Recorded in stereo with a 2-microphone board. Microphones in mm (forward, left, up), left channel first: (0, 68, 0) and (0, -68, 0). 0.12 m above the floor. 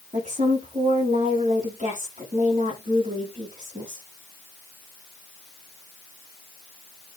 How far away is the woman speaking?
About 6.5 m.